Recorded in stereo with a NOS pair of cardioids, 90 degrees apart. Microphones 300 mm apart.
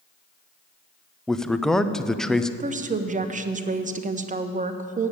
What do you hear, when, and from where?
1.3 s a man speaking: straight ahead, 0.5 m
2.6 s a woman speaking: 25° right, 0.9 m